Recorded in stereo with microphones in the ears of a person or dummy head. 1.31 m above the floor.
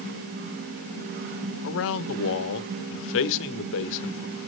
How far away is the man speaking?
About 1.1 m.